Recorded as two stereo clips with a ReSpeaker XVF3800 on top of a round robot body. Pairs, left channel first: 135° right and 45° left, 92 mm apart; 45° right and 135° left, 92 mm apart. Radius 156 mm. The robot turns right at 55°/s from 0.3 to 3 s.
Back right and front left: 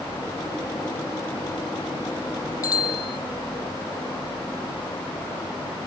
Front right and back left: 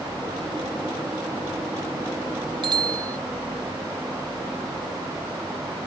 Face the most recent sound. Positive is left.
turn(degrees=-170)